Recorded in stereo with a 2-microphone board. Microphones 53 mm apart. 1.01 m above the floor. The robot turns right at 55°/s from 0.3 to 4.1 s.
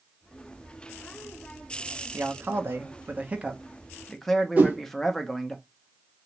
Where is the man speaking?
100° right, 0.8 m; by 5.6 s 10° left, 0.8 m.